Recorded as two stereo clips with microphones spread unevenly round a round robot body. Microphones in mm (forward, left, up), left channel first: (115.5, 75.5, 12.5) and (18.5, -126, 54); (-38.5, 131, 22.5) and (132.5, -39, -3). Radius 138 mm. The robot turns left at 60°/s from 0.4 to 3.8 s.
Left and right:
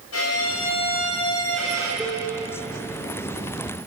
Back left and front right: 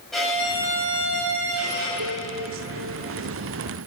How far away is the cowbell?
About 3 m.